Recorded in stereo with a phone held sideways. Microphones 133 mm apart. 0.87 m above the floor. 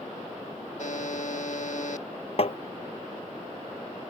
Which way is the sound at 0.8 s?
65° left (ahead or behind).